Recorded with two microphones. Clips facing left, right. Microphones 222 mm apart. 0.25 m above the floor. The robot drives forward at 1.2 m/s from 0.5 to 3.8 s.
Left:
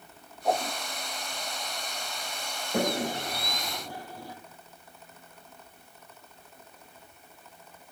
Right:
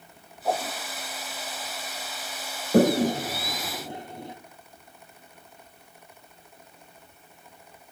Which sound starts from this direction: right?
A toilet flushing, at 2.7 s.